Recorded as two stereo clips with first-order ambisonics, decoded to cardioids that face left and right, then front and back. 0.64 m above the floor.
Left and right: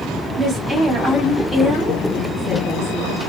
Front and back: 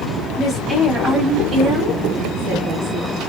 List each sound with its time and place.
0.4 s a woman speaking: 65° right, 0.8 m; by 3.2 s straight behind, 1.6 m